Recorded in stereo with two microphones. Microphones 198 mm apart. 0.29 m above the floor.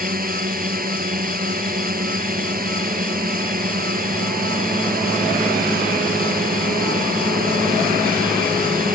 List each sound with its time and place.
0.0 s a drone: 45° right (ahead or behind)